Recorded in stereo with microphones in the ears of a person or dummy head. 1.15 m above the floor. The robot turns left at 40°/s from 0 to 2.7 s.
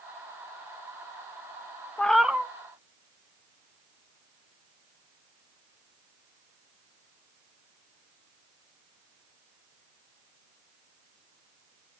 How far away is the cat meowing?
About 0.6 m.